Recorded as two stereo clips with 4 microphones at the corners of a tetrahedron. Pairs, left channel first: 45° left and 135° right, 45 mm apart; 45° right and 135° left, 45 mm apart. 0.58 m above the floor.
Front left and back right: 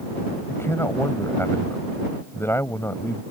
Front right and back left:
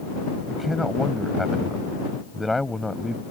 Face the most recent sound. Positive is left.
turn(degrees=45)